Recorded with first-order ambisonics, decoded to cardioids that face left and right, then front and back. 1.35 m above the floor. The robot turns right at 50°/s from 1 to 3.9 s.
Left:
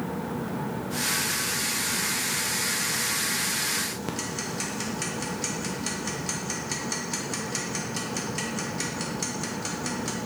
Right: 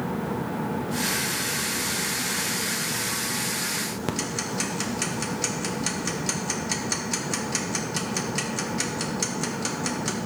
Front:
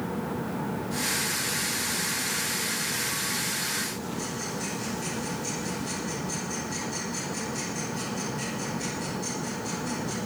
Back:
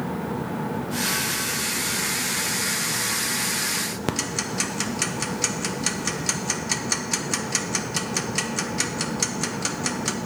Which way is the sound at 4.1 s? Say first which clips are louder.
Right 3 dB, back 6 dB; 165° right.